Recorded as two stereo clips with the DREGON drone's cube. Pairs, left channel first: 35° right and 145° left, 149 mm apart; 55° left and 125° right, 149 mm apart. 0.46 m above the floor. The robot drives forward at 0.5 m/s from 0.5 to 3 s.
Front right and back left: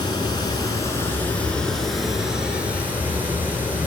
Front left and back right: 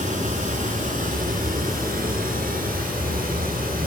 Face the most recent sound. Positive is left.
turn(degrees=-135)